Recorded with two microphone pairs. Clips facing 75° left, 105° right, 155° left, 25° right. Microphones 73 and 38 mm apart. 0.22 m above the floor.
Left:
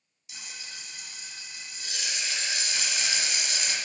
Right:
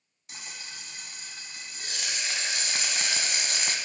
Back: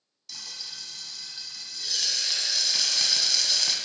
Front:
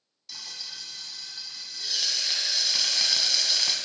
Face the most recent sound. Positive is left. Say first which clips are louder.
# right 1 dB, front 1 dB
turn(degrees=-110)